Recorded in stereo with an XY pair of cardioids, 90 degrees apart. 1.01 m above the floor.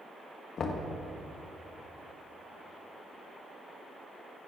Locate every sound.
0.6 s knocking: 60° left, 0.9 m